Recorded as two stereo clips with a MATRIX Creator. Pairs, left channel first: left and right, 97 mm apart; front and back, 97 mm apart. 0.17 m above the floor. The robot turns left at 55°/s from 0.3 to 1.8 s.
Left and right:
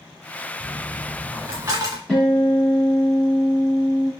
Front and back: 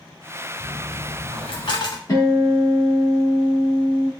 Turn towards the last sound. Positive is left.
turn(degrees=15)